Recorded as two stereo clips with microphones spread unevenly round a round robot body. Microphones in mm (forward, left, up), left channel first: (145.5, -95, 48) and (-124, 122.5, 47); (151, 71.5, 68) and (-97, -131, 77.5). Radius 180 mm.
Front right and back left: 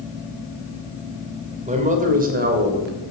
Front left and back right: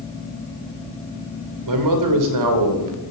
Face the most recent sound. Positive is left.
turn(degrees=-160)